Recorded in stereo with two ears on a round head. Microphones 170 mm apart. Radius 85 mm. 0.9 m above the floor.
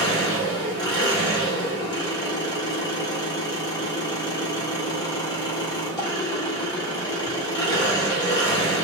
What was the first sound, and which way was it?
An engine running, 20° left (ahead or behind).